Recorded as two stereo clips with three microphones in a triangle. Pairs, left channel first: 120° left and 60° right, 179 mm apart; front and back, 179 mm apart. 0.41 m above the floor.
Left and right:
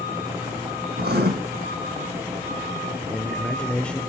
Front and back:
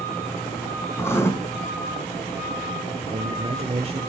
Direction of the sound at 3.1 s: 160° right.